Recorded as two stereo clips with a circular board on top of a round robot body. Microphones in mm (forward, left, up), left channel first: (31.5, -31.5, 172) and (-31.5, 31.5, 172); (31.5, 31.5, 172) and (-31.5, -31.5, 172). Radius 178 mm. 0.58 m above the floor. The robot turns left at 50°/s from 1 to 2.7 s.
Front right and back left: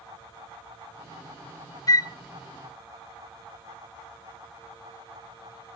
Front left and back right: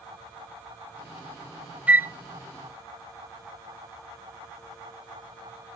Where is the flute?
65° right, 0.8 m; by 2.1 s 80° right, 0.8 m.